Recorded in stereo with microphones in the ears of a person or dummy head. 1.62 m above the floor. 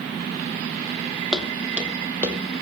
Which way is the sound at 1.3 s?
Centre (ahead or behind).